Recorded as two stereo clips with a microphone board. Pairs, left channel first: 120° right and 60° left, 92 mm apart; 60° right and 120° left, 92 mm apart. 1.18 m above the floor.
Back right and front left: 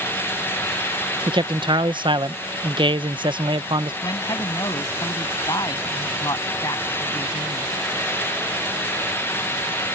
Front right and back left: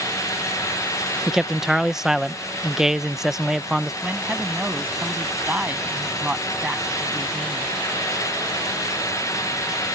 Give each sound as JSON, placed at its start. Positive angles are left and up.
{"t": 1.3, "sound": "a man speaking", "azimuth_deg": 35}
{"t": 4.0, "sound": "a man speaking", "azimuth_deg": -165}